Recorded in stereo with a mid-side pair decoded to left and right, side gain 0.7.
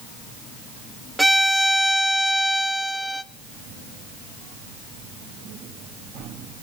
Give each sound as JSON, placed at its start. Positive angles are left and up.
{"t": 1.2, "sound": "a violin", "azimuth_deg": -5, "distance_m": 0.6}